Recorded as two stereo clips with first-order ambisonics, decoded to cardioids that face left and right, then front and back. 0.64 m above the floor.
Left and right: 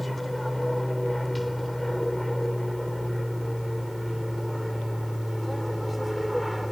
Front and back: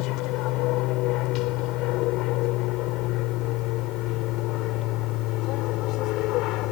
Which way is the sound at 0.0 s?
Straight ahead.